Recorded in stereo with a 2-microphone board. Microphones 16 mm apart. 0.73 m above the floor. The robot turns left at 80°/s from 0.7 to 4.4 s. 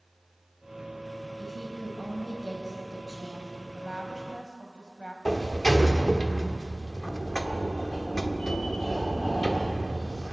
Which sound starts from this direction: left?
A sliding door, at 5.2 s.